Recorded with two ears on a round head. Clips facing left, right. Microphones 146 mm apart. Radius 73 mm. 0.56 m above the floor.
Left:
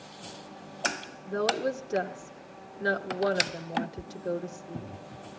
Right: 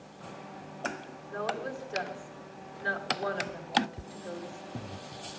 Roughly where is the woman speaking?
Left.